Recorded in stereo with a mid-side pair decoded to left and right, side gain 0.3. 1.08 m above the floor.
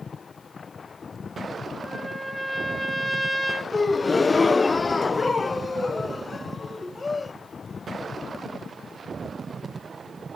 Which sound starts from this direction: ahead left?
A gasp, at 3.7 s.